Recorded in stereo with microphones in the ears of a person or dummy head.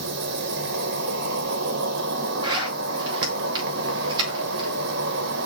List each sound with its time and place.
0.0 s an insect: 55° right (ahead or behind), 1.4 m
2.4 s a zipper: 20° right (ahead or behind), 2.5 m